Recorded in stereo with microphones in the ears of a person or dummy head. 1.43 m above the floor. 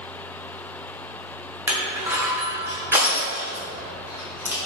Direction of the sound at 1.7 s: 10° right (ahead or behind).